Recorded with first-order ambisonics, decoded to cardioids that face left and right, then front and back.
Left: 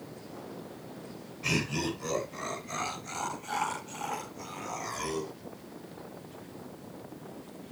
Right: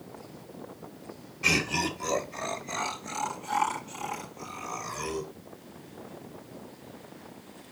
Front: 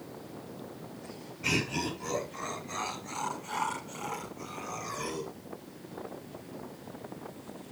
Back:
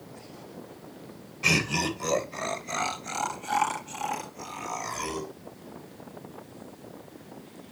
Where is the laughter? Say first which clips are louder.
Right 5 dB, back 6 dB; 150° right, 2.5 m; by 5.3 s 165° left, 5 m.